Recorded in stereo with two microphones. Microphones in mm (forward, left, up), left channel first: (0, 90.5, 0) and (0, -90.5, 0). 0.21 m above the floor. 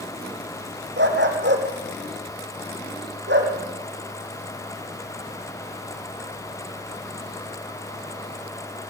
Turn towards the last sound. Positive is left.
turn(degrees=-80)